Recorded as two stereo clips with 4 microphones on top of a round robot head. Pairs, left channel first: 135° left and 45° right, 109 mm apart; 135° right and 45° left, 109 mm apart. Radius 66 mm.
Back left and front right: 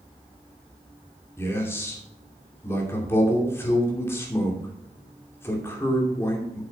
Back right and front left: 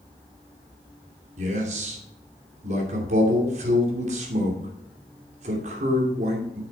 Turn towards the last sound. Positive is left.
turn(degrees=65)